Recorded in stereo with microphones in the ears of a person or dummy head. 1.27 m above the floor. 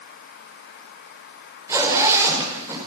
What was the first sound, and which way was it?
A zipper, 10° right (ahead or behind).